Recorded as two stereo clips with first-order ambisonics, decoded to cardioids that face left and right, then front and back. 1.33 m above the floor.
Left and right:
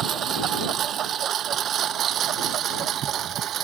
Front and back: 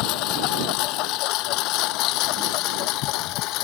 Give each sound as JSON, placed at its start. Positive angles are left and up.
{"t": 0.0, "sound": "a lawn mower", "azimuth_deg": -30}